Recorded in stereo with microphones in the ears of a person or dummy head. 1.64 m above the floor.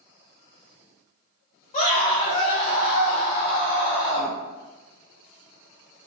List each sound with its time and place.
1.7 s a scream: 40° left (ahead or behind), 1.8 m